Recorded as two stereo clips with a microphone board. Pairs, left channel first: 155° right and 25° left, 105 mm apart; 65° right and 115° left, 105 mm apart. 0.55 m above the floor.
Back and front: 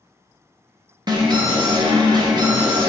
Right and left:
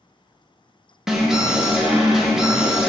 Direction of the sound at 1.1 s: 30° left.